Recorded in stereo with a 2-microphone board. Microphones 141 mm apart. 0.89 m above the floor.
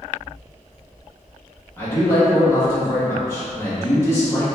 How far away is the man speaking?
About 1.6 m.